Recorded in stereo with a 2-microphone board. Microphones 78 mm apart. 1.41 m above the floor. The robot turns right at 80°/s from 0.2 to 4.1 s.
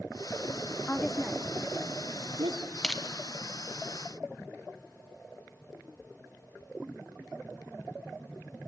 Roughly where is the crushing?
Centre.